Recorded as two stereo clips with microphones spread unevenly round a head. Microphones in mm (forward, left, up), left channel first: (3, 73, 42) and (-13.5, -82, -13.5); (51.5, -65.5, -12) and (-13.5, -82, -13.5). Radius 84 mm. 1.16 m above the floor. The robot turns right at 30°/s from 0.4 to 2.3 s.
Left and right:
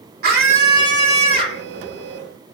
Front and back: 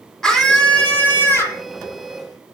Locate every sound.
0.2 s a scream: 65° right, 3 m; by 1.6 s 30° right, 3 m